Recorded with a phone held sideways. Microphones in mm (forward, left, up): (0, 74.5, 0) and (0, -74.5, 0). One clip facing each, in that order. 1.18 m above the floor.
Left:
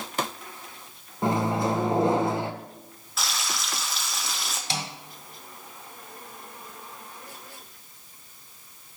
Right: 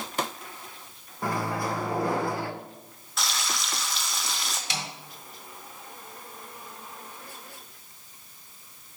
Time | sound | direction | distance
1.2 | a microwave | 20° left (ahead or behind) | 0.6 m
3.2 | frying | centre (ahead or behind) | 0.8 m
4.7 | a snare drum | 30° left (ahead or behind) | 1.7 m